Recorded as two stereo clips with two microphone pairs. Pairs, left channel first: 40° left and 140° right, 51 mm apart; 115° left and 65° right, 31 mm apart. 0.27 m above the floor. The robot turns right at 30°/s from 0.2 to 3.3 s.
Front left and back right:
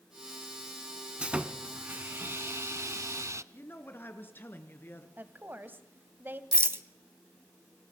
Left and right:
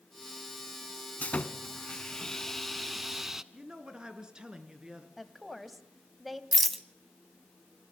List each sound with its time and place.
1.2 s sawing: 155° left, 0.9 m; by 3.4 s 145° right, 0.9 m
3.5 s a woman speaking: straight ahead, 3 m
5.2 s a woman speaking: 155° right, 1.9 m
6.5 s a rattle: 165° right, 1.2 m